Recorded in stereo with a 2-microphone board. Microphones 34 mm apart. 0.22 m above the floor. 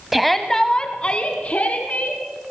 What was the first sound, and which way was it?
A shout, 5° right (ahead or behind).